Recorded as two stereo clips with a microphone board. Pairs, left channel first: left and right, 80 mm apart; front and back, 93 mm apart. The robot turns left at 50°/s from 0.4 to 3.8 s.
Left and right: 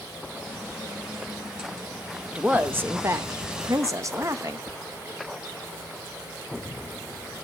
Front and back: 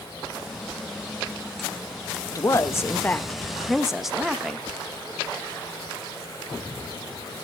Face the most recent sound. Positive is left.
turn(degrees=-95)